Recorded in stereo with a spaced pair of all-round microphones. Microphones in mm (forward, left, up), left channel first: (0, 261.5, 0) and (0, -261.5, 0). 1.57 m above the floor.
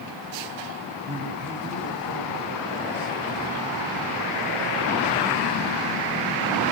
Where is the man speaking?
70° right (ahead or behind), 7 m; by 3.2 s 60° right (ahead or behind), 6 m.